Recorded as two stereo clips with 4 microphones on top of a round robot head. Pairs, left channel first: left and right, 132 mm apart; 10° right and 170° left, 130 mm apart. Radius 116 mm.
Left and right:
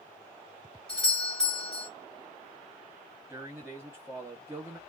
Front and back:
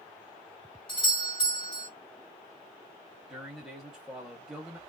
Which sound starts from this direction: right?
A man speaking, at 3.3 s.